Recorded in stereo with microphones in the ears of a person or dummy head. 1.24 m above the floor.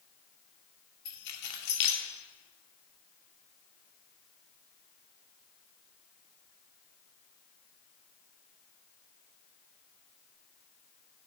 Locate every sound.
1.1 s keys jangling: 65° left (ahead or behind), 2 m